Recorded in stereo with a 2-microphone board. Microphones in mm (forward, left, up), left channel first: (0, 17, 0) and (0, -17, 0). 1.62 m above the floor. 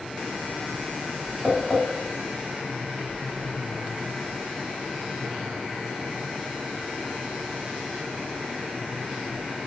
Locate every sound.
1.4 s tapping: 20° right (ahead or behind), 1.3 m